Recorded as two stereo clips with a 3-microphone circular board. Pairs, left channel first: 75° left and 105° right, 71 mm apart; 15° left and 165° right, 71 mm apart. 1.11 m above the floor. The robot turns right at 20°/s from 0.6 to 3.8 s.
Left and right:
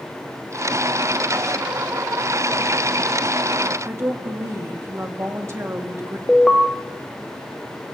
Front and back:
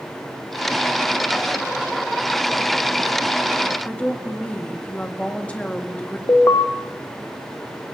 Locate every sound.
3.9 s a woman speaking: 55° right, 1.7 m
6.3 s an alarm: 5° right, 1.0 m